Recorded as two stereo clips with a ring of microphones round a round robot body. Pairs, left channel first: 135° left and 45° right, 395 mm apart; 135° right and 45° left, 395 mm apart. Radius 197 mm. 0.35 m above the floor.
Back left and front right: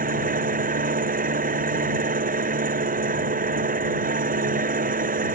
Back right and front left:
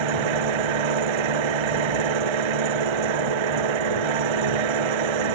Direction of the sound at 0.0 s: 25° left.